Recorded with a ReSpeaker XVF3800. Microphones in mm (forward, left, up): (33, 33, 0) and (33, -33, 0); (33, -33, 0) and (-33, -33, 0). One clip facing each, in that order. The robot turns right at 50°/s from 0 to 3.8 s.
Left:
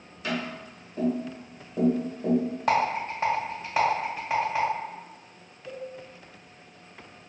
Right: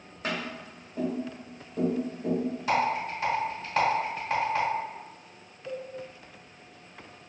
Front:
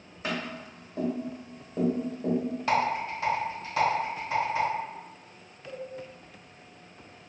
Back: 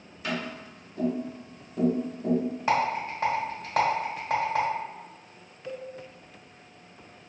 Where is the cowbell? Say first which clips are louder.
Right 1 dB, back 2 dB; 150° right, 1.2 m.